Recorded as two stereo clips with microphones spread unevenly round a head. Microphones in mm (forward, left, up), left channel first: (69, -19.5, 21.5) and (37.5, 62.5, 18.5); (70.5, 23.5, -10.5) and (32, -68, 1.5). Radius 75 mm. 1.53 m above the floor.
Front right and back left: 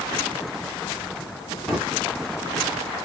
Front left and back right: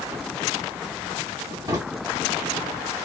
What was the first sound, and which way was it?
A drawer, 160° right.